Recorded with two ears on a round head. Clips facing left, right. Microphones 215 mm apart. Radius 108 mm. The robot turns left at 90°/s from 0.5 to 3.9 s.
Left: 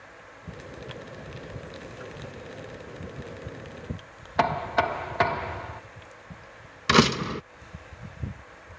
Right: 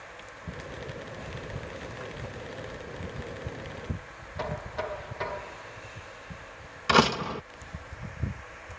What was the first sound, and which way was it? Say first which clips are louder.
Knocking: left 8 dB; 75° left (ahead or behind).